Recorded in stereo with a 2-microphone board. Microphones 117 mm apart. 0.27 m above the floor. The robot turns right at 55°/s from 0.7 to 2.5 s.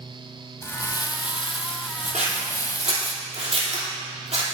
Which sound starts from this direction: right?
Scissors, at 2.1 s.